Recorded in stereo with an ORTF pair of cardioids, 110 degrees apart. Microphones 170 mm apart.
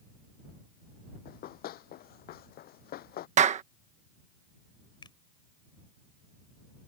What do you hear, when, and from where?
1.2 s running footsteps: 70° left
3.4 s a clap: 45° right
5.0 s a finger snap: 25° left